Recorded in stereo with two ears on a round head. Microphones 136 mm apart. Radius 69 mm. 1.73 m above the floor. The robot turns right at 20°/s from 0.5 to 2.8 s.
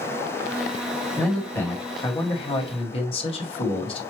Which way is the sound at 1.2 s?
5° left.